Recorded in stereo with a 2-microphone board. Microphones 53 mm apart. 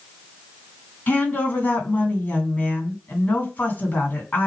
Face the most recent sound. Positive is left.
turn(degrees=35)  # may be behind; listen again after turning